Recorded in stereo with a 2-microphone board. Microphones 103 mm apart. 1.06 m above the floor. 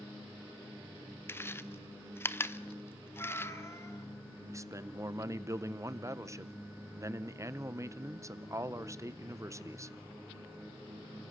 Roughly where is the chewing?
Left.